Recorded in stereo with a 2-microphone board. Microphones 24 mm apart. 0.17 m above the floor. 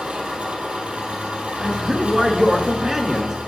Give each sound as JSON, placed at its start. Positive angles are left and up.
{"t": 0.0, "sound": "an engine running", "side_deg": -55, "distance_m": 3.0}
{"t": 1.6, "sound": "a man speaking", "side_deg": -15, "distance_m": 1.7}